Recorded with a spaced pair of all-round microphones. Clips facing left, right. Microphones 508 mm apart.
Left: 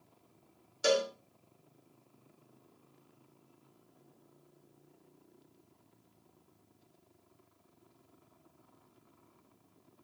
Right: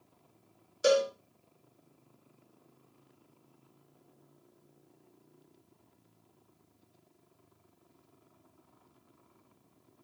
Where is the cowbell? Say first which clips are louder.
Right 4 dB; 15° left (ahead or behind), 1.0 m.